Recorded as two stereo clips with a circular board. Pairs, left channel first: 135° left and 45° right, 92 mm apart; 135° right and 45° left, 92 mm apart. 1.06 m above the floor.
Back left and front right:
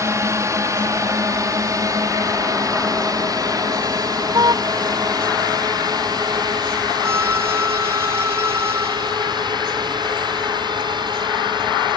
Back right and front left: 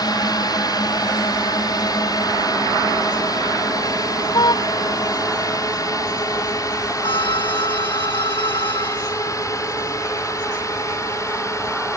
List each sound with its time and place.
0.0 s a drone: 95° right; by 12.0 s 80° right
4.3 s a car horn: 90° right
7.0 s a violin: 110° right